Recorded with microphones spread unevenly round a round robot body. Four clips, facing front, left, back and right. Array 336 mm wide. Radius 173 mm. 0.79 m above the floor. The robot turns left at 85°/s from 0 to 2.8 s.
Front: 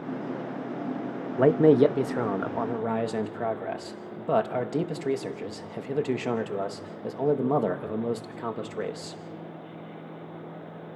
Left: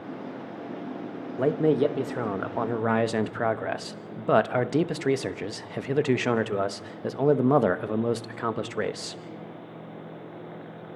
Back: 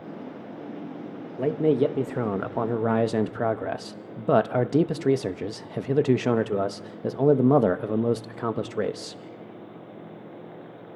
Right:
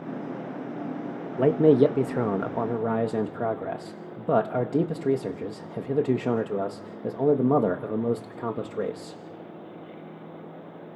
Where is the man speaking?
40° right, 0.9 m; by 9.2 s 160° right, 0.9 m.